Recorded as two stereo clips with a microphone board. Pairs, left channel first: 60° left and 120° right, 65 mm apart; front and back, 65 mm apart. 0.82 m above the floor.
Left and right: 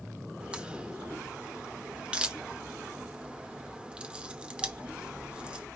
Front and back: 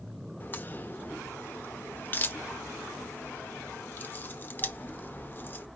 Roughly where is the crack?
Ahead right.